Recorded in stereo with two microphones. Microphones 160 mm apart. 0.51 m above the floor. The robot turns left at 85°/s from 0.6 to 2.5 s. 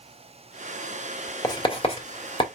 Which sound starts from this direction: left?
Writing, at 1.4 s.